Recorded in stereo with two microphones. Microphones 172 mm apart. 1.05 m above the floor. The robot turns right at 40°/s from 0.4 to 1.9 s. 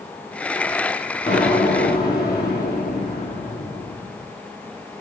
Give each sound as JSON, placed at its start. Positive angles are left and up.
{"t": 1.3, "sound": "an explosion", "side_deg": 45, "distance_m": 3.5}